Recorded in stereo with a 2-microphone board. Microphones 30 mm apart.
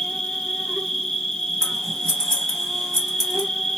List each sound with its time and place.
0.0 s an insect: 10° left (ahead or behind), 0.7 m
1.6 s scissors: 20° left (ahead or behind), 1.8 m